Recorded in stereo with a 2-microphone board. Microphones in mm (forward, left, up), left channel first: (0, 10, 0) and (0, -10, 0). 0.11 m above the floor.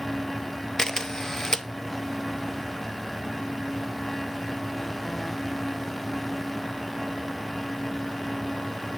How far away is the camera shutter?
About 0.8 m.